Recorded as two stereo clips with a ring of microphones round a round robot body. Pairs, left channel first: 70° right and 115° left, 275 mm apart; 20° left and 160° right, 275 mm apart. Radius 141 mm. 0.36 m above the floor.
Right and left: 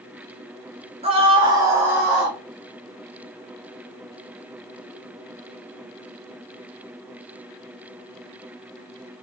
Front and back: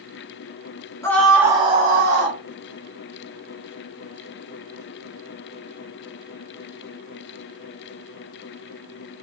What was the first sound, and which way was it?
A scream, 85° left.